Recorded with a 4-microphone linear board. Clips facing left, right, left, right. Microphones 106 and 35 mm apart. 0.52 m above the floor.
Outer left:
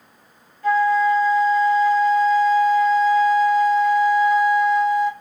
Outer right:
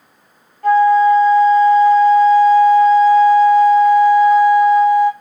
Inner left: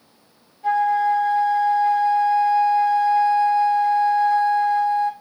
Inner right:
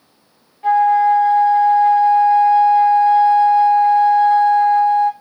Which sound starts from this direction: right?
A flute, at 0.6 s.